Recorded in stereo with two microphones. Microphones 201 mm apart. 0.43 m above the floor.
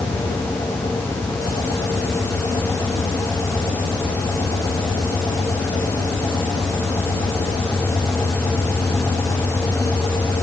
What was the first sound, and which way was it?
Only background noise.